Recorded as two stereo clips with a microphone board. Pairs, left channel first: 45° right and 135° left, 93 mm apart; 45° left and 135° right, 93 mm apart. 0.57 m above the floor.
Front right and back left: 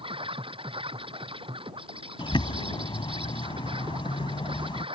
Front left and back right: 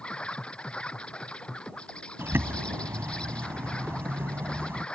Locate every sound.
0.0 s an insect: 125° left
2.2 s a bird: 70° right